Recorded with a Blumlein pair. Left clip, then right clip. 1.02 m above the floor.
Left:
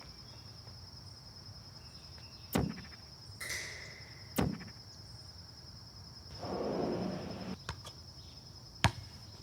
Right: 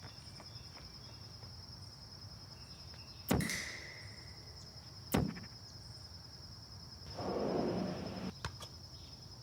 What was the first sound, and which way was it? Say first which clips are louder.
A finger snap: even; 65° right.